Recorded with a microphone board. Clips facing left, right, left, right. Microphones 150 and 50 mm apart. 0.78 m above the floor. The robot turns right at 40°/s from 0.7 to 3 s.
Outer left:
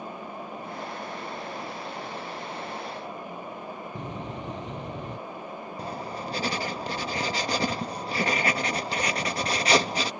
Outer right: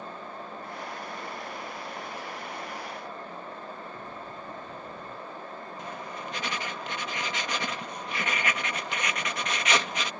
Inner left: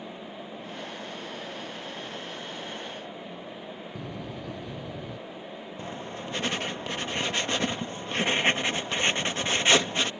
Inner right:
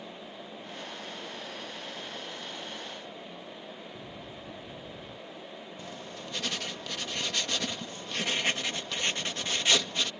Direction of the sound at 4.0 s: 80° left.